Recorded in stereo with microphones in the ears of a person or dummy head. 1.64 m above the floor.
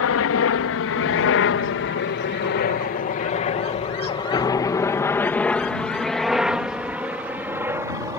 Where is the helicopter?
65° left (ahead or behind); by 8.2 s 15° right (ahead or behind).